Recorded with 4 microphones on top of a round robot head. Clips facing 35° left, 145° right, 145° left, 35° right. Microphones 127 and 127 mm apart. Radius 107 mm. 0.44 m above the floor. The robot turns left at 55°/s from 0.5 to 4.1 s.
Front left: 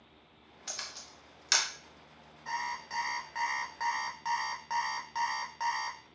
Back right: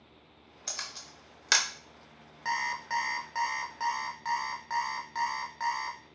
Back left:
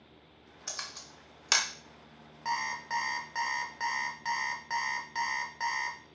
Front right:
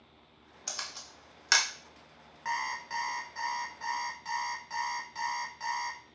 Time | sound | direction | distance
0.7 | a camera shutter | 105° right | 0.8 m
2.5 | an alarm clock | 150° right | 0.6 m